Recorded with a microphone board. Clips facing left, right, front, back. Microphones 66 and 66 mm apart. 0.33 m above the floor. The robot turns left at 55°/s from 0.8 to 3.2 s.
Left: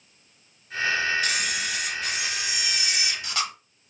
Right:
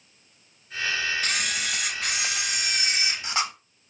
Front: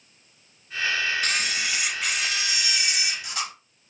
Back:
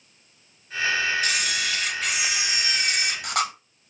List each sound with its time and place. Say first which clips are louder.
1.2 s a camera shutter: left 1 dB, back 1 dB; 45° right, 0.5 m; by 3.5 s 155° right, 0.5 m